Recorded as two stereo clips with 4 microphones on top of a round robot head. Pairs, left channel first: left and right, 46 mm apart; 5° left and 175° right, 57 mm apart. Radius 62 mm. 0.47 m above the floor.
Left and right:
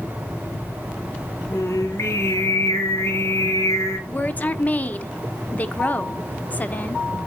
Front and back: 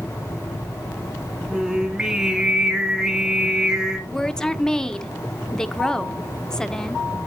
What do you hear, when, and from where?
1.5 s singing: 105° left, 2 m
4.1 s a woman speaking: 75° left, 1.5 m